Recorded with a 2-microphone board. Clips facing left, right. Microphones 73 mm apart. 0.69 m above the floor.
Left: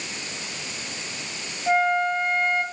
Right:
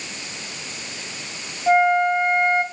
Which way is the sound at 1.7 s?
20° right (ahead or behind).